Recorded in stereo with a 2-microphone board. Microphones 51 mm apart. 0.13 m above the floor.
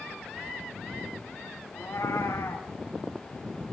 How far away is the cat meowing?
About 4 m.